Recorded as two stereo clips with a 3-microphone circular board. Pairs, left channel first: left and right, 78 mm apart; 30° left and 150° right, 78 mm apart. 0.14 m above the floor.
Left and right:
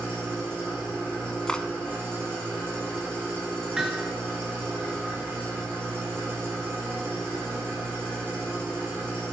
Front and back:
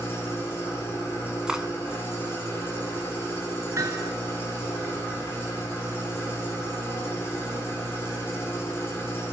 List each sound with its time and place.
0.0 s an engine running: 30° right, 3.5 m
1.5 s cutlery clinking: 150° left, 0.6 m
3.8 s hammering: 165° right, 1.2 m